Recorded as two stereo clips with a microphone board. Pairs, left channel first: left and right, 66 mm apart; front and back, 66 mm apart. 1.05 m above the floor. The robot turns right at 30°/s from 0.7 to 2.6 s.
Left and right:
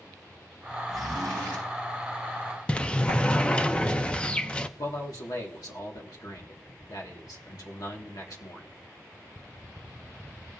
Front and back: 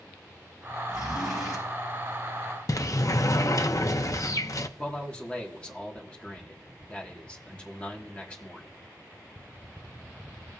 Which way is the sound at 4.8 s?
70° left.